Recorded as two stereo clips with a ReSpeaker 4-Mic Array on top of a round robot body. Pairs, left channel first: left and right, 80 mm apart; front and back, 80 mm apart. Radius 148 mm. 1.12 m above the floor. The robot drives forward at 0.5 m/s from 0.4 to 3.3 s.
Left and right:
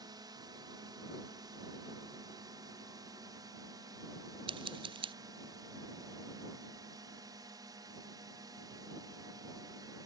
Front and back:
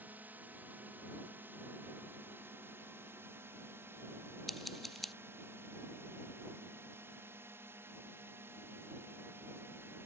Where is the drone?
115° right; by 10.1 s 120° right.